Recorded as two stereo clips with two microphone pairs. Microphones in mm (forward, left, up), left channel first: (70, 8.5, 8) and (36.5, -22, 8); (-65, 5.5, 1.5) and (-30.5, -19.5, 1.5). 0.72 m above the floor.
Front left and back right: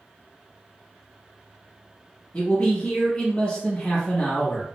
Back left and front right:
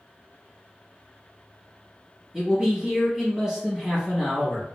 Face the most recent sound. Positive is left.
turn(degrees=20)